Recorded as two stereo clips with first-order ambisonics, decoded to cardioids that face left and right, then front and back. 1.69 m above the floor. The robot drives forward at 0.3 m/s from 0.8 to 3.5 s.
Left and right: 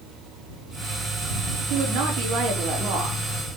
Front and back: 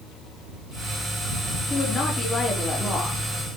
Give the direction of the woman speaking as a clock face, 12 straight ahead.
2 o'clock.